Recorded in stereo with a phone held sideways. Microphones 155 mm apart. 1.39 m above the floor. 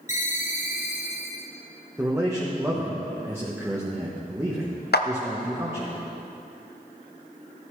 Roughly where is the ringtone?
Left.